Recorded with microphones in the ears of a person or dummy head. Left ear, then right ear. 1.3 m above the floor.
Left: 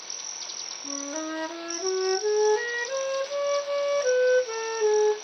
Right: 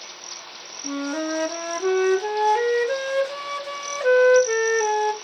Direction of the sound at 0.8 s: 20° right (ahead or behind).